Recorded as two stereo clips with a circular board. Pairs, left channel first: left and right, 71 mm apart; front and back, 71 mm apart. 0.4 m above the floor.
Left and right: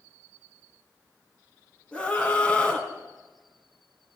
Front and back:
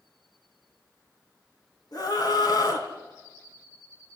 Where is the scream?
15° left, 3.5 m.